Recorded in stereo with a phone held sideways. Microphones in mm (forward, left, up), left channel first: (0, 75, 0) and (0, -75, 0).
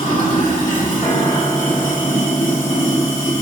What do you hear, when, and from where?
0.0 s running water: 45° left (ahead or behind), 2.0 m
1.0 s a piano: 10° left (ahead or behind), 1.8 m